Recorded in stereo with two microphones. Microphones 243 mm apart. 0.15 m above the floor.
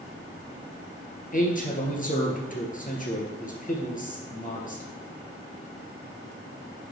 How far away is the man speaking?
About 2.5 m.